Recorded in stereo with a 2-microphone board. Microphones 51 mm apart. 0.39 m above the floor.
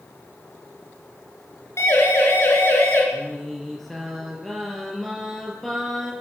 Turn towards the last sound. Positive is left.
turn(degrees=5)  # may be behind; listen again after turning